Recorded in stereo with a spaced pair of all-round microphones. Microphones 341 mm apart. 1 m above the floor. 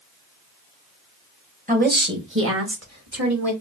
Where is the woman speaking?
20° right (ahead or behind), 1.2 m; by 3.5 s 50° right (ahead or behind), 2.0 m.